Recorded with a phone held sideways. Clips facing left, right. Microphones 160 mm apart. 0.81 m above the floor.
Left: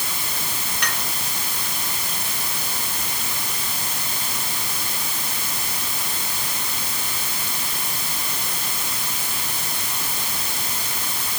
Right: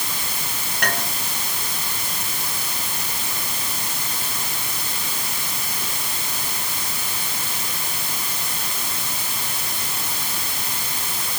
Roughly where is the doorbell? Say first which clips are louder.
Right 6 dB; right.